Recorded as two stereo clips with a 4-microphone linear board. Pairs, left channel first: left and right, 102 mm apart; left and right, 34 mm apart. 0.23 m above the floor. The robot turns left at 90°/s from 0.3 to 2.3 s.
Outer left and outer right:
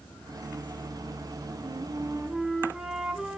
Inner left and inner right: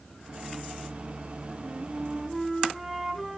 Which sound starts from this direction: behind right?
A flute, at 1.6 s.